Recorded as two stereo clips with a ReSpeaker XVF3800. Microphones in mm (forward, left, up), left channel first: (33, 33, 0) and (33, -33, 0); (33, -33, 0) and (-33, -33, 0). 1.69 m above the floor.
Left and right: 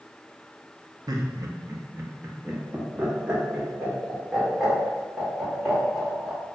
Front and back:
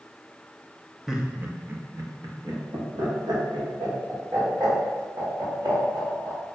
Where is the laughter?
95° right, 0.5 m; by 6.4 s 175° right, 3 m.